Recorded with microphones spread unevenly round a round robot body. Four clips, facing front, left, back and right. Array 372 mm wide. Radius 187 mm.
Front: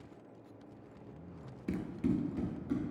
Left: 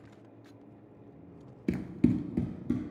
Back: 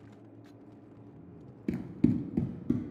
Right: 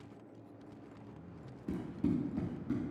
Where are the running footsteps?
80° left, 0.5 m; by 2.9 s 165° left, 0.7 m.